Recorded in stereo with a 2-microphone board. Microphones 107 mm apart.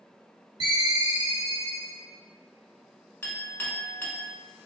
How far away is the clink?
About 0.6 m.